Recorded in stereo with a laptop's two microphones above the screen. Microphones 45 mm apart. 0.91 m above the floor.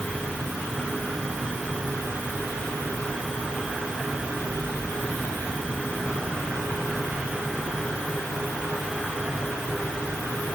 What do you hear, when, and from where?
Only background noise.